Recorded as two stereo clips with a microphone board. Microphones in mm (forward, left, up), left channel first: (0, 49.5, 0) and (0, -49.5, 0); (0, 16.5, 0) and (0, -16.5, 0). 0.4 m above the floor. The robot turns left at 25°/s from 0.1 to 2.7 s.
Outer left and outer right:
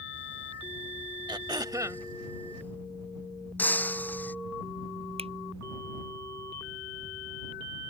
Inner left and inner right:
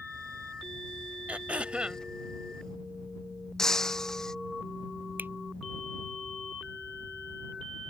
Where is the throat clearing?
50° right (ahead or behind); by 2.0 s 30° right (ahead or behind).